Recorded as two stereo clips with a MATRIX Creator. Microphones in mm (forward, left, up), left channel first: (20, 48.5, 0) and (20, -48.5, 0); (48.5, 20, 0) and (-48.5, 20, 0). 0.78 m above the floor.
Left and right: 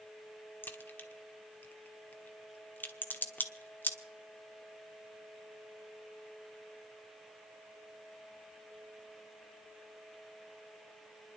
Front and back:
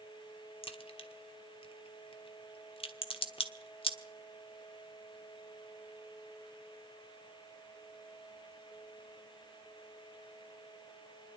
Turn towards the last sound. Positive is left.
turn(degrees=20)